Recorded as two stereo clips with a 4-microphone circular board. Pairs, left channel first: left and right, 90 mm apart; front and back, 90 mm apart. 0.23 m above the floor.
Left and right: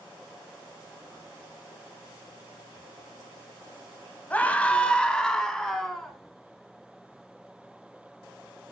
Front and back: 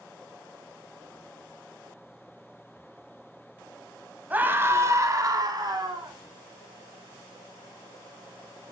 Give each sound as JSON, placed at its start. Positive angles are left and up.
{"t": 4.3, "sound": "a scream", "azimuth_deg": 135, "distance_m": 1.0}